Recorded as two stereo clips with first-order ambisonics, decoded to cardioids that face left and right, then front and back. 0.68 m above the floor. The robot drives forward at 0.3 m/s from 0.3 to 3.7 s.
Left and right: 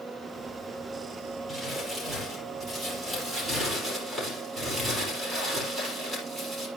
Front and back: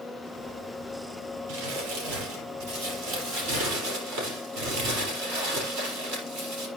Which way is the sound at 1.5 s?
Straight behind.